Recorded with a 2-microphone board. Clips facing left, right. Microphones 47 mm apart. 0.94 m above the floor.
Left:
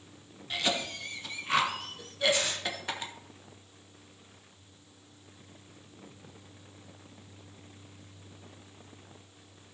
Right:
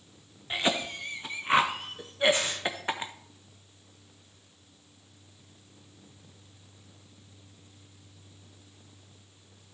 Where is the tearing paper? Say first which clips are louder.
Even; 40° right (ahead or behind), 4.5 m.